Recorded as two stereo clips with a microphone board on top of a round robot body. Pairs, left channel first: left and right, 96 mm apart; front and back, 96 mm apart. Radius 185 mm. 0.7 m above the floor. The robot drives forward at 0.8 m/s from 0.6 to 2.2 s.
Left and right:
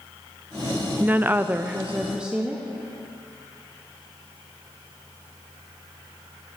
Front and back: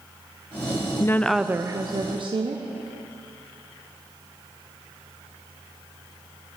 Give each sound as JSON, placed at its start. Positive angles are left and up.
{"t": 1.0, "sound": "a woman speaking", "azimuth_deg": -30, "distance_m": 0.6}